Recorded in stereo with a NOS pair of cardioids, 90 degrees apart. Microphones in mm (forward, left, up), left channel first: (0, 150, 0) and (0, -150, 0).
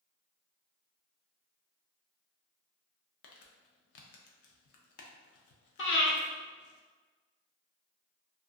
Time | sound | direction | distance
3.2 | crumpling | 60° left | 0.5 m
5.8 | breathing | 45° left | 0.8 m